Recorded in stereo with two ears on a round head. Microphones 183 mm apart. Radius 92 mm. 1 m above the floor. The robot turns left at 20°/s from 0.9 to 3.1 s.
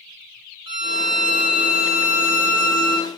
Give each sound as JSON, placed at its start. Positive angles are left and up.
{"t": 0.7, "sound": "a violin", "azimuth_deg": -60, "distance_m": 0.9}